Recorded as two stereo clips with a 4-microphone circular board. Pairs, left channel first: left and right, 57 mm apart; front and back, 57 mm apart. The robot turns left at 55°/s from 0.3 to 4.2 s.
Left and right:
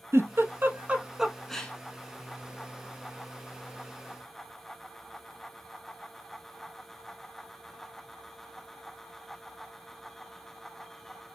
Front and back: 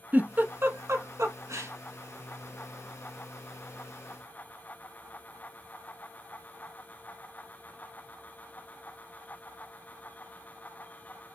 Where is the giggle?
120° right, 0.6 m; by 1.7 s 160° left, 0.6 m.